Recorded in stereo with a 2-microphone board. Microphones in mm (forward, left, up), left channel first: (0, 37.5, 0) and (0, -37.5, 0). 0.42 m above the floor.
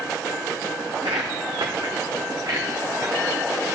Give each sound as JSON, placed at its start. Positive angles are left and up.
{"t": 0.9, "sound": "footsteps", "side_deg": -80, "distance_m": 1.9}